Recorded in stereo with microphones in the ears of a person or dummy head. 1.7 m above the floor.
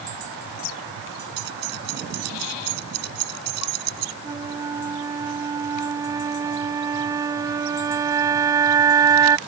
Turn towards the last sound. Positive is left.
turn(degrees=-20)  # may be behind; listen again after turning